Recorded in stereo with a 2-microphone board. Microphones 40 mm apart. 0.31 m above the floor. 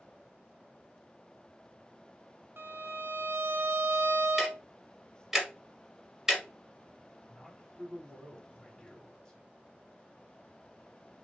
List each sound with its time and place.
2.6 s a violin: 60° right (ahead or behind), 0.5 m
4.4 s ticking: 10° right (ahead or behind), 0.9 m
7.3 s a man speaking: 10° left (ahead or behind), 1.6 m